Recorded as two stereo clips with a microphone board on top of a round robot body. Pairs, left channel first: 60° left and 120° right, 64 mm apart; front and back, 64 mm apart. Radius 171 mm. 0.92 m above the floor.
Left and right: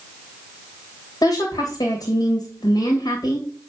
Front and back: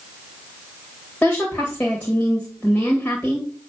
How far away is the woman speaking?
About 2 m.